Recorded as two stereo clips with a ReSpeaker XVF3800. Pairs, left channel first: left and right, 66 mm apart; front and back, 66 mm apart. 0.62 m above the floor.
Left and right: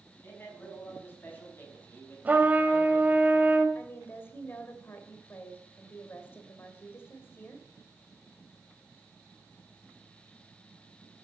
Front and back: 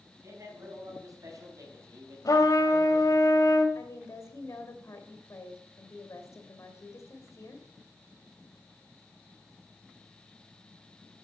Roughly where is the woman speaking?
Ahead left.